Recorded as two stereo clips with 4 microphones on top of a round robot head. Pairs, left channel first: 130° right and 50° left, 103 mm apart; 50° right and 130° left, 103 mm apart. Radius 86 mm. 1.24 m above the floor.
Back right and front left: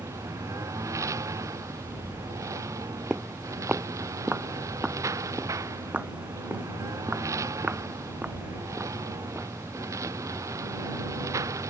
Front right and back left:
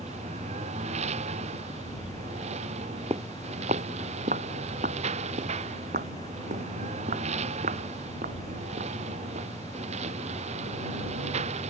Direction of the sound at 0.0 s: 110° left.